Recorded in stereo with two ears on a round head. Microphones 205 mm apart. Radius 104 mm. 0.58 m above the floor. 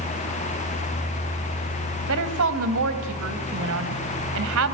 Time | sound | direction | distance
2.1 | a woman speaking | 60° right (ahead or behind) | 3 m